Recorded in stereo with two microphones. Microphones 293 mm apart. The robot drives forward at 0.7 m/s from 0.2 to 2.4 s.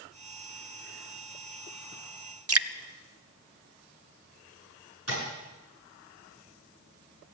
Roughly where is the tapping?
Right.